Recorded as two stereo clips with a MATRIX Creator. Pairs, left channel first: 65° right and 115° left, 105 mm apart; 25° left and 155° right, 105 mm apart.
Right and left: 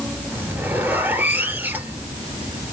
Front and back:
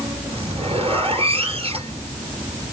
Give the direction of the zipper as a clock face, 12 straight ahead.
6 o'clock.